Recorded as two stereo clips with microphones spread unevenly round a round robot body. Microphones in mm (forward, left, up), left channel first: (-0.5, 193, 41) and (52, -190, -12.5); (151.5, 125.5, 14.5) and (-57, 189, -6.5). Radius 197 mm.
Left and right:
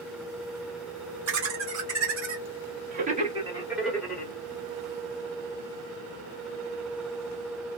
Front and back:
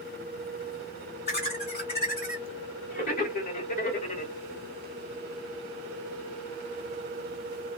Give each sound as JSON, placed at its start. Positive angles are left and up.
{"t": 1.3, "sound": "laughter", "azimuth_deg": -85, "distance_m": 1.7}